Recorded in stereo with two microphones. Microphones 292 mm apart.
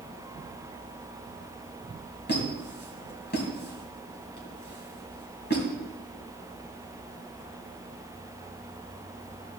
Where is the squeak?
35° left (ahead or behind), 2.5 m.